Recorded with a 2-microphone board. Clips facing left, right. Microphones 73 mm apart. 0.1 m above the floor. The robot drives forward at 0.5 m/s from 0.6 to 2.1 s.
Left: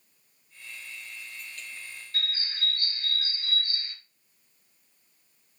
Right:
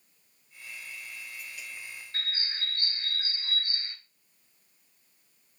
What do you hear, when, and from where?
2.1 s a bird: 30° right (ahead or behind), 1.4 m